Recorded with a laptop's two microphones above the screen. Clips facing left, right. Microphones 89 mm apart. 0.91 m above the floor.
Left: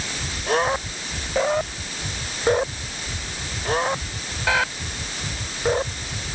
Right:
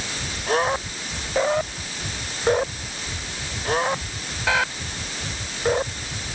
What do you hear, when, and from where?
Only background noise.